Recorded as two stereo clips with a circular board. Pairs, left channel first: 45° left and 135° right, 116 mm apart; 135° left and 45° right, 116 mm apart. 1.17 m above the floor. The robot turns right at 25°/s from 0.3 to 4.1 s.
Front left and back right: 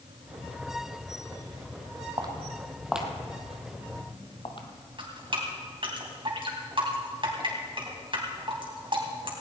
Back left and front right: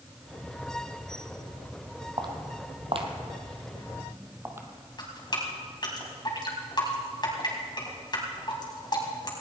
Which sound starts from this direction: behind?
Dripping, at 5.0 s.